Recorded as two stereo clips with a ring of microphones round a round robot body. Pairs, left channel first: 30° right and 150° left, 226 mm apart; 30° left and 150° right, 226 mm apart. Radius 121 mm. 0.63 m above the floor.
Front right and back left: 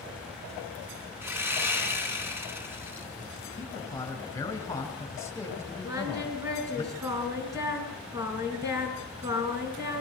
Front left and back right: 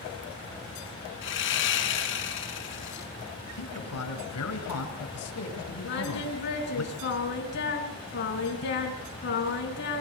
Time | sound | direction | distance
1.2 | sawing | 70° left | 3.5 m
3.6 | a man speaking | 45° left | 4.5 m
5.8 | singing | 75° left | 4 m